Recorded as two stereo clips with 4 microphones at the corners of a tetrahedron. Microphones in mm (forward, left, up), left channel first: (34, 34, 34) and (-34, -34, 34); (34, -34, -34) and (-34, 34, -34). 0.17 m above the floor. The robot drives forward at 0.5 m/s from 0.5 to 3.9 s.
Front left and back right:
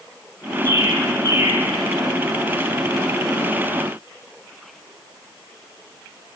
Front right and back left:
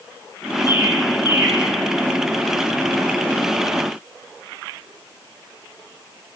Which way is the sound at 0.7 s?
170° right.